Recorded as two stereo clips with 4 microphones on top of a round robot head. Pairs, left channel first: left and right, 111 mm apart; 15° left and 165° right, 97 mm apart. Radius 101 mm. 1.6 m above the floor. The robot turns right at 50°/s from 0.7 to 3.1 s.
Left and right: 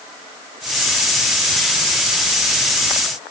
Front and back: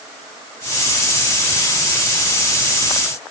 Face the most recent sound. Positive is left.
No sound to turn to.